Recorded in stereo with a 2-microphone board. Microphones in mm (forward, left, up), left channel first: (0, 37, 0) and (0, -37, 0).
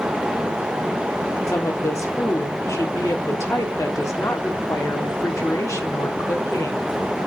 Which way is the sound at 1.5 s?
40° left (ahead or behind).